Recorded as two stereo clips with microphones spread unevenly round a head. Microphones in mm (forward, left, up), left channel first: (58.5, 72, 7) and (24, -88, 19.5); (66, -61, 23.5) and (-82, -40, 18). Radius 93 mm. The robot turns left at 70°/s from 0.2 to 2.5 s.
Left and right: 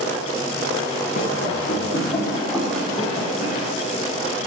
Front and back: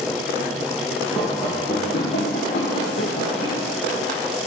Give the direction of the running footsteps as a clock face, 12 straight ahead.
9 o'clock.